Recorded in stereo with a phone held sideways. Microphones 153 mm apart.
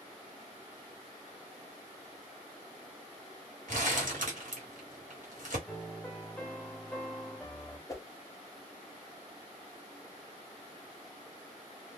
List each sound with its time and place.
3.7 s crumpling: 65° right (ahead or behind), 1.2 m
5.7 s a piano: 5° left (ahead or behind), 0.7 m
7.9 s a whoosh: 20° left (ahead or behind), 0.5 m